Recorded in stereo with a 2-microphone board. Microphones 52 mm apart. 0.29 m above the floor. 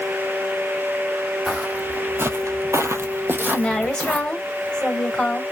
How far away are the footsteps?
About 0.9 m.